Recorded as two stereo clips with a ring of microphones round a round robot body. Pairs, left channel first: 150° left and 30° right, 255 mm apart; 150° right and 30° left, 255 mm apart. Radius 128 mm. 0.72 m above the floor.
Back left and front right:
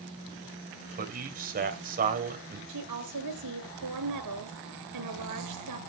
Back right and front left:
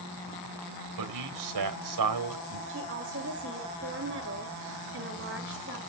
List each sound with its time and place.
1.0 s a man speaking: 25° left, 3 m
2.7 s a woman speaking: 15° right, 9 m